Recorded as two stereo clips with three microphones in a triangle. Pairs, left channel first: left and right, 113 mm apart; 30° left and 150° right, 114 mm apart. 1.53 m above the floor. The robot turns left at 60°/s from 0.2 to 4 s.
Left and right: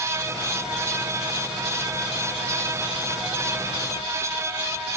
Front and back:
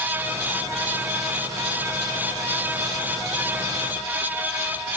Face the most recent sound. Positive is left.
No sound to turn to.